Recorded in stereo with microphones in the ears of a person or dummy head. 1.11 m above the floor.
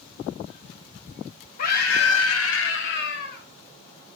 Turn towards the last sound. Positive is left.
turn(degrees=65)  # may be behind; listen again after turning